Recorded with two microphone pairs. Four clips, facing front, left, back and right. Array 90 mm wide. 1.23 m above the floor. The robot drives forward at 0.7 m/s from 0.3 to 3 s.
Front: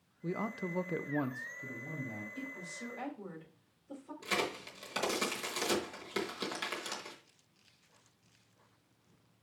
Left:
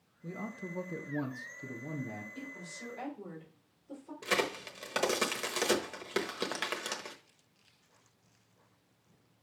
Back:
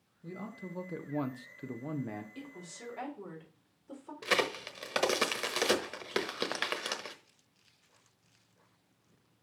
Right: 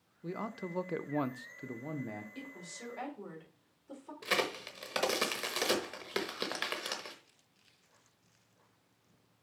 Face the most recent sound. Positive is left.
turn(degrees=-170)